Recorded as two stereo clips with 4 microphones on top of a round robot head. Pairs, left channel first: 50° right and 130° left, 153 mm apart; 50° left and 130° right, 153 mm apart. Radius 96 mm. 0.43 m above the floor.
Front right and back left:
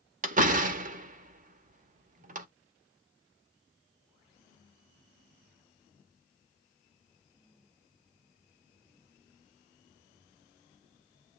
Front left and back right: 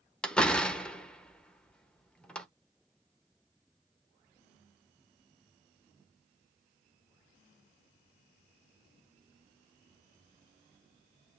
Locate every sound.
0.2 s a door slam: 135° left, 1.1 m